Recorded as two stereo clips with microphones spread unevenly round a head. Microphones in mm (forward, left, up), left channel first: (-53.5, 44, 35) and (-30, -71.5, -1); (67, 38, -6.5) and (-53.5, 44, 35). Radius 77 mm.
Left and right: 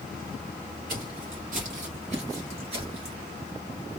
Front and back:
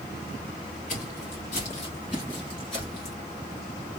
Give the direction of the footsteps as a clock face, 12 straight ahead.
2 o'clock.